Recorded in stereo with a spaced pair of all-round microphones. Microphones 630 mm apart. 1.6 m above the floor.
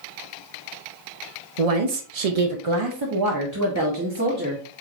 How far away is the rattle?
I don't hear a rattle.